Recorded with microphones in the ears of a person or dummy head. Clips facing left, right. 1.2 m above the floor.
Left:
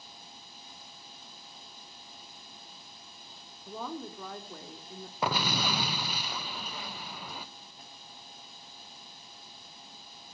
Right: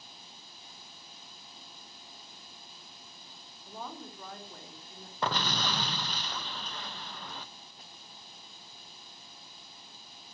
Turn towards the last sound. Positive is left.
turn(degrees=5)  # may be behind; listen again after turning